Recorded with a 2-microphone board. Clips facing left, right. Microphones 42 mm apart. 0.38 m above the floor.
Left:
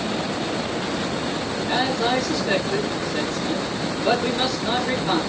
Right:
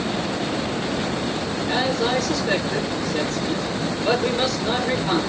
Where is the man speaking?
5° left (ahead or behind), 4.5 m.